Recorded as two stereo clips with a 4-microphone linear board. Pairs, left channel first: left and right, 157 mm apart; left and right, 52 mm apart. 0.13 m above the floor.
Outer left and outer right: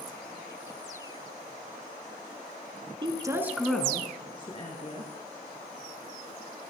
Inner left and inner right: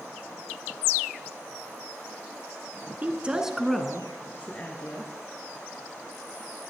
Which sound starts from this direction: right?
A woman speaking, at 3.0 s.